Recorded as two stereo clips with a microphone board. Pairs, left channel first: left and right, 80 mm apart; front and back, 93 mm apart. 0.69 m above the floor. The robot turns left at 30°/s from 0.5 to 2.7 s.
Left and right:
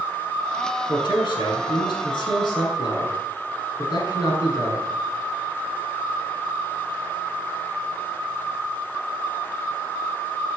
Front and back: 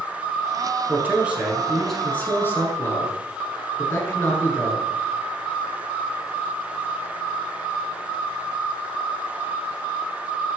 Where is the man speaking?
115° left, 7.5 m; by 4.9 s 60° left, 7.5 m.